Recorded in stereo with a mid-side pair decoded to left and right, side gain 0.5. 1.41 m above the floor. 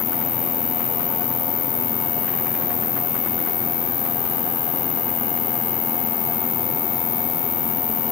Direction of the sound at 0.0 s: 60° left.